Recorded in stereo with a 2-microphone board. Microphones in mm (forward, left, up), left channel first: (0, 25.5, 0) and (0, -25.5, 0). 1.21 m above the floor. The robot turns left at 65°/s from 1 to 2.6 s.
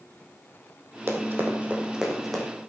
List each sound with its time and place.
1.1 s running footsteps: 55° right (ahead or behind), 3 m; by 2.4 s 10° left (ahead or behind), 4.5 m